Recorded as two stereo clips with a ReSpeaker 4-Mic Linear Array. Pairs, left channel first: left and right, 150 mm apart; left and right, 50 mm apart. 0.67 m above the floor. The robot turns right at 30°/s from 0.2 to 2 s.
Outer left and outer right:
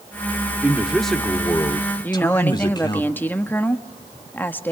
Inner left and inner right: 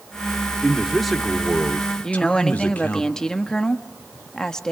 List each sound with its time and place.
0.6 s a man speaking: 10° right, 1.9 m; by 3.0 s 30° left, 1.9 m
2.0 s a woman speaking: 10° left (ahead or behind), 1.2 m